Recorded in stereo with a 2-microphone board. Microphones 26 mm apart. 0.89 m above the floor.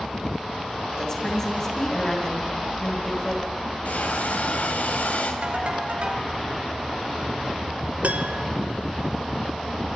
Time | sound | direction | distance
1.0 | a woman speaking | 20° left (ahead or behind) | 7 m
3.9 | a hiss | 85° left | 4 m
5.4 | a ringtone | 50° right (ahead or behind) | 3.5 m
8.0 | a piano | 70° right (ahead or behind) | 1.6 m